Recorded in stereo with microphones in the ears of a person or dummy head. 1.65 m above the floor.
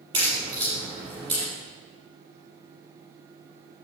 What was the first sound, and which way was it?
A crack, 25° right (ahead or behind).